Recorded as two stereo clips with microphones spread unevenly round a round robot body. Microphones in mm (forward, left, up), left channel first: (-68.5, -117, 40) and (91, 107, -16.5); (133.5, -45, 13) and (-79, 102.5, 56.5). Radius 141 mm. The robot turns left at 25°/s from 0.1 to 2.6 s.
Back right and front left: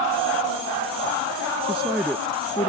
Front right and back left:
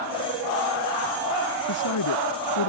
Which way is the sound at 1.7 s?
30° right.